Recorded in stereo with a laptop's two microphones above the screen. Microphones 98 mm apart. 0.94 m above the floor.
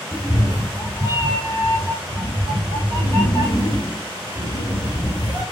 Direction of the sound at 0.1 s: Centre (ahead or behind).